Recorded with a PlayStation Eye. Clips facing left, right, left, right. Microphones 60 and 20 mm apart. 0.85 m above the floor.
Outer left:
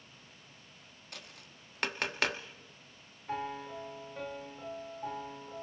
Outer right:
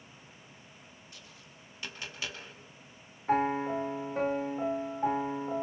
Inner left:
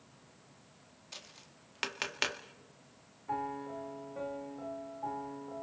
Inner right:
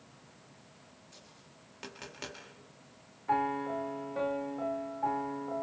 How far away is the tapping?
About 2 m.